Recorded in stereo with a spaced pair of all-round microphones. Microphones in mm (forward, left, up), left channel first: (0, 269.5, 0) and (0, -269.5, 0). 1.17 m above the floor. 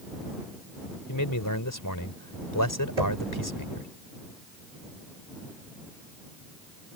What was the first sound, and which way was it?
A man speaking, 35° left (ahead or behind).